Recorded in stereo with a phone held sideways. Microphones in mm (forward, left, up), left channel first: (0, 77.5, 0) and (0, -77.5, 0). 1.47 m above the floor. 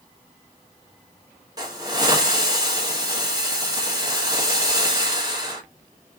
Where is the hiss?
25° right (ahead or behind), 1.1 m.